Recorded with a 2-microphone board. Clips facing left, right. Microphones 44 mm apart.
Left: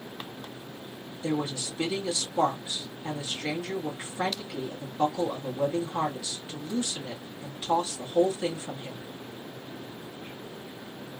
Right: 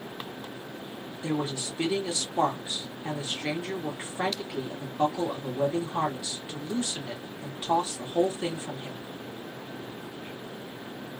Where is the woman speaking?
20° right (ahead or behind), 1.6 m.